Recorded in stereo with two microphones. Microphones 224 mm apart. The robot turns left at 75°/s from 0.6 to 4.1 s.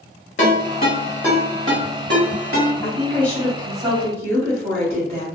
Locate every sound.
0.4 s a ringtone: 55° left (ahead or behind), 1.2 m; by 2.7 s 75° right (ahead or behind), 1.2 m
2.8 s a woman speaking: 45° left, 0.8 m; by 5.2 s 50° right, 0.8 m